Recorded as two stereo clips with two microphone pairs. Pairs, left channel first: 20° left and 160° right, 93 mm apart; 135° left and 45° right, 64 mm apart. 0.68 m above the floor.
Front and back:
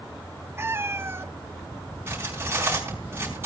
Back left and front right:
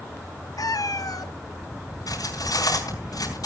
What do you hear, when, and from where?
0.6 s a cat meowing: 135° left, 0.6 m
2.1 s cutlery clinking: 135° left, 4.5 m